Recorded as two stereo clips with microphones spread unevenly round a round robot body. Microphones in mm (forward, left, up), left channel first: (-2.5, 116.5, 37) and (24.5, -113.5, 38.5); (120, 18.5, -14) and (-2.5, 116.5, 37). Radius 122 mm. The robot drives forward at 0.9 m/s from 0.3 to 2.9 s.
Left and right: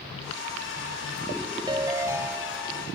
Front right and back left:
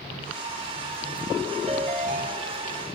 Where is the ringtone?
150° right, 1.0 m; by 3.0 s 170° right, 1.9 m.